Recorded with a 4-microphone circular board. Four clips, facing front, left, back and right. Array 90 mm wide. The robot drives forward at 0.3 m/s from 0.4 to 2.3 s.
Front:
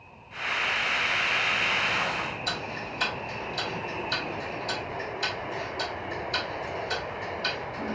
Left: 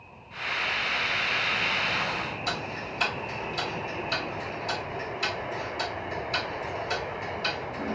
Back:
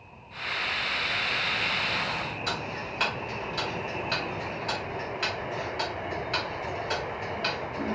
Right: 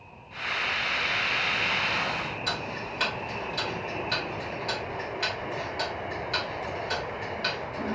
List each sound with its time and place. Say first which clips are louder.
2.5 s ticking: even, back 1 dB; 160° right, 1.4 m